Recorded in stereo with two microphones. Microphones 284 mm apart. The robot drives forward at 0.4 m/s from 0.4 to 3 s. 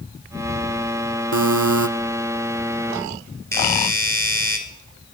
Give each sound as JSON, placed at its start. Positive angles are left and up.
{"t": 1.3, "sound": "a buzzer", "side_deg": -80, "distance_m": 0.6}
{"t": 3.5, "sound": "a doorbell", "side_deg": 10, "distance_m": 1.9}